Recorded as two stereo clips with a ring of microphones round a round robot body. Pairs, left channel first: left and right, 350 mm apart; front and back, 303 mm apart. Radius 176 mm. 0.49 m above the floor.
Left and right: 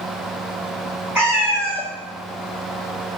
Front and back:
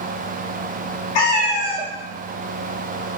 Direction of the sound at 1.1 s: 5° right.